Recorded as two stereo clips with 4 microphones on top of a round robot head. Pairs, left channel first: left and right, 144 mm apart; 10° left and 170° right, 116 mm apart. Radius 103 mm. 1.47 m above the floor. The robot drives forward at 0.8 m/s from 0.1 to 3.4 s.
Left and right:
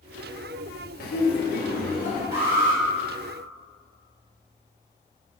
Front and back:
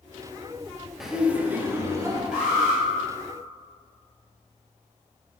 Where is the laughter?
100° left, 1.6 m; by 2.2 s 130° left, 2 m.